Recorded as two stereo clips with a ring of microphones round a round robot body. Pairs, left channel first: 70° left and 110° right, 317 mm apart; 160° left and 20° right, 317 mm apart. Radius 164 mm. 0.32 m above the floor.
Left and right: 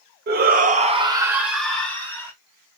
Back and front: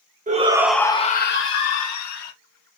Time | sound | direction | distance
0.3 | a shout | 75° right | 1.1 m